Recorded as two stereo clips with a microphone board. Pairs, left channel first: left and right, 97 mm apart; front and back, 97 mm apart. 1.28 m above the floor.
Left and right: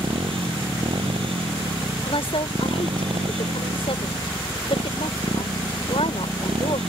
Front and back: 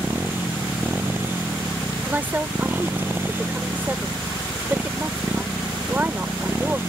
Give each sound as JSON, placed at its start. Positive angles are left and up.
{"t": 0.0, "sound": "a motorcycle", "azimuth_deg": -110}
{"t": 2.0, "sound": "a woman speaking", "azimuth_deg": 110}